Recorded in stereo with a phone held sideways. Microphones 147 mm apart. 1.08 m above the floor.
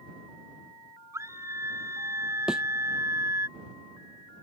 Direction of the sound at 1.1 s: 20° right (ahead or behind).